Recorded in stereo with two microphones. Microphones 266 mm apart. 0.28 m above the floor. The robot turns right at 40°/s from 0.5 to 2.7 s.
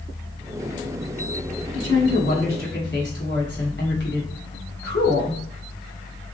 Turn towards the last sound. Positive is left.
turn(degrees=125)